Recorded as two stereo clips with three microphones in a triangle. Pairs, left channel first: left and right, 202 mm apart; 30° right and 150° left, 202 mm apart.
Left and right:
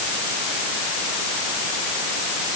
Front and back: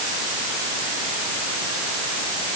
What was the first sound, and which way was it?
Only background noise.